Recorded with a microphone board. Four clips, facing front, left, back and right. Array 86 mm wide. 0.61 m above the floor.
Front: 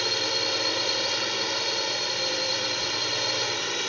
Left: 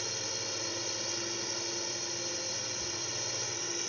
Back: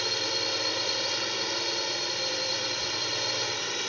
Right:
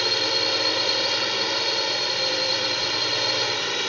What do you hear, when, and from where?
0.0 s a drone: 75° right